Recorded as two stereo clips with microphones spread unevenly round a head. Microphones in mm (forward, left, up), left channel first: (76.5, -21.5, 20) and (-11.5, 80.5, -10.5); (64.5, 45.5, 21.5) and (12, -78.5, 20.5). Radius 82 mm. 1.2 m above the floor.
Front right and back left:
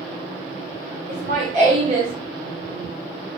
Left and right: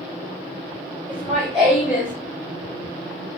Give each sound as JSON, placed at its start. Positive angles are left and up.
{"t": 1.1, "sound": "laughter", "azimuth_deg": 140, "distance_m": 1.1}